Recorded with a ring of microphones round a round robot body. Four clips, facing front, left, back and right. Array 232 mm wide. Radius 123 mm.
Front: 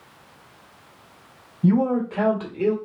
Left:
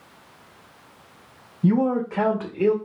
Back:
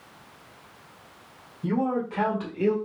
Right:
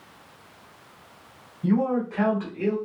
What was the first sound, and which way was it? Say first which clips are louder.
A man speaking: left 3 dB, front 6 dB; 45° left.